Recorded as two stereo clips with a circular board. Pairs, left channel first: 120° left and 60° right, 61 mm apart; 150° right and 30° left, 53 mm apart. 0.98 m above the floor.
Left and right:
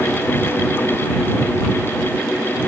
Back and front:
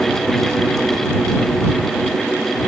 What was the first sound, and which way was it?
Only background noise.